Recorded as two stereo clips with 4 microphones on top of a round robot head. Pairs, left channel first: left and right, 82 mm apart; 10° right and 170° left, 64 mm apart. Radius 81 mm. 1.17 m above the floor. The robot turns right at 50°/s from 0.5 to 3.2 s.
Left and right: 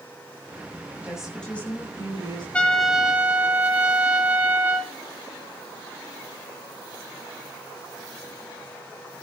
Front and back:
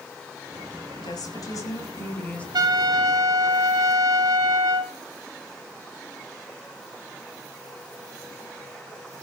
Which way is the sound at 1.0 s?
15° right.